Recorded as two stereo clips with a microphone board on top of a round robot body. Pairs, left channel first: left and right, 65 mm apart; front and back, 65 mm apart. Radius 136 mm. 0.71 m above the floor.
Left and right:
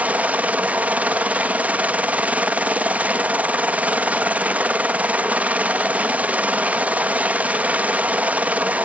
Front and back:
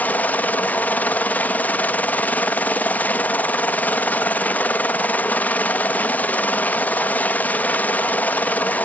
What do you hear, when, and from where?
0.0 s a helicopter: 40° right